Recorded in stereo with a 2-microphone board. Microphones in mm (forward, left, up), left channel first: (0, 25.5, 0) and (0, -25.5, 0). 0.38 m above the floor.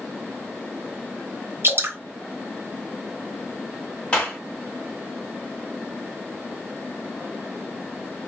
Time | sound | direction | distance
1.6 | dripping | 50° right (ahead or behind) | 1.4 m
4.1 | a clap | 25° left (ahead or behind) | 2 m